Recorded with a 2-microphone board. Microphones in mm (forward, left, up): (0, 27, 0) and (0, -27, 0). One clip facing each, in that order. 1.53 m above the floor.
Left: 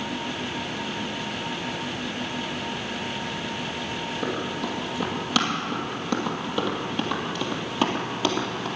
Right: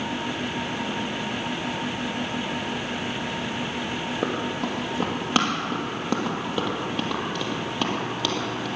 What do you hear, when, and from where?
4.2 s running footsteps: 40° right (ahead or behind), 3.5 m; by 8.7 s 25° left (ahead or behind), 3 m